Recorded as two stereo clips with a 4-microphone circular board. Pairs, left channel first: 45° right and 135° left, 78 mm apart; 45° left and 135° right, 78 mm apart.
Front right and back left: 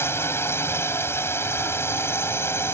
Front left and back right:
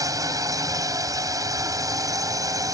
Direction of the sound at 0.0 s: 100° right.